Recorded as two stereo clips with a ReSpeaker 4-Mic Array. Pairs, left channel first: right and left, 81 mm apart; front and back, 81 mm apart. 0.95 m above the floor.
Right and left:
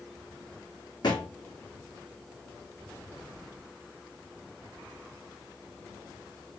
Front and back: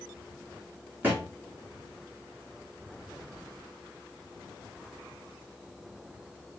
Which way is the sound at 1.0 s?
115° right.